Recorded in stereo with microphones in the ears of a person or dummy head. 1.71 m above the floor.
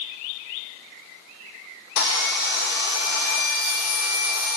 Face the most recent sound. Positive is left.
turn(degrees=55)  # may be behind; listen again after turning